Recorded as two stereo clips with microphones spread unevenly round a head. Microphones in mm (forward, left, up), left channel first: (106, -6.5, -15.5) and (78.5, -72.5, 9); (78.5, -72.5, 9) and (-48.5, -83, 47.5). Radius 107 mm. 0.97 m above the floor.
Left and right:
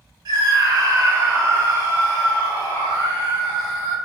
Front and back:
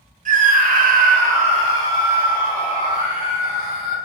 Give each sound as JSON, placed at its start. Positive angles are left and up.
{"t": 0.2, "sound": "a scream", "azimuth_deg": -150, "distance_m": 1.0}